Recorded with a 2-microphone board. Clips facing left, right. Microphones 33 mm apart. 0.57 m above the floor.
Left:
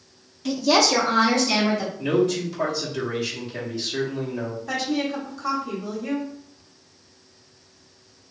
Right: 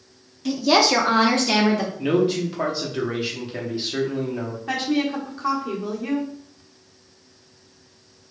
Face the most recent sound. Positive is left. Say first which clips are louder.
# right 3 dB
turn(degrees=-30)  # may be behind; listen again after turning